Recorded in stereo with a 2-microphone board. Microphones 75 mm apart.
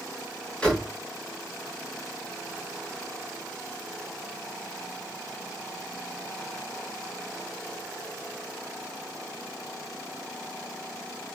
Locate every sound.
0.6 s a door slam: 15° left (ahead or behind), 5.5 m